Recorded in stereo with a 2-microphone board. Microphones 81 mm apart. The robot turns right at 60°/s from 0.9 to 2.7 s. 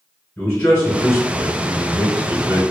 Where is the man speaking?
150° left, 1.5 m; by 2.6 s 105° right, 1.5 m.